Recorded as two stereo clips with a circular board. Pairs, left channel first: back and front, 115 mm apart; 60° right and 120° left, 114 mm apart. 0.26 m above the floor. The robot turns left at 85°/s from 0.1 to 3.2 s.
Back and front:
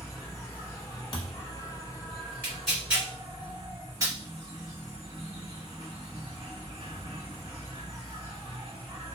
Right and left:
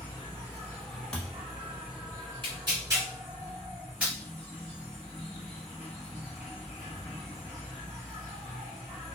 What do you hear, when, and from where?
0.0 s an insect: 75° right, 1.3 m; by 9.2 s 20° left, 1.3 m
1.1 s a thud: 140° right, 1.1 m; by 1.5 s 170° right, 1.1 m
2.4 s tearing paper: 110° left, 1.8 m; by 4.1 s 45° left, 1.8 m